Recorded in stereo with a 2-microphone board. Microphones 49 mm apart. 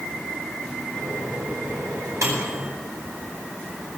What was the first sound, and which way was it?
A microwave, 80° right.